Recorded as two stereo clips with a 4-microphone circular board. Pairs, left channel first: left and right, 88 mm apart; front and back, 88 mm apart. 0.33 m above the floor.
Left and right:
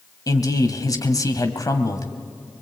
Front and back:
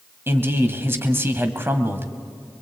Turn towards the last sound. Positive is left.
turn(degrees=125)